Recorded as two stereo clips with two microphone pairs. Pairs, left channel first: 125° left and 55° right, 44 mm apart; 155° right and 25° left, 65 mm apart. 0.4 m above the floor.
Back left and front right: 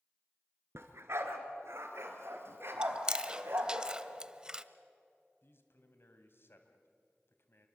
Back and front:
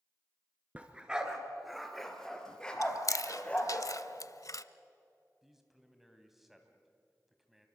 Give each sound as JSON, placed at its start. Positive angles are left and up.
{"t": 0.8, "sound": "a dog barking", "azimuth_deg": -45, "distance_m": 2.0}
{"t": 2.8, "sound": "chewing", "azimuth_deg": -125, "distance_m": 0.6}
{"t": 5.4, "sound": "a man speaking", "azimuth_deg": 110, "distance_m": 2.5}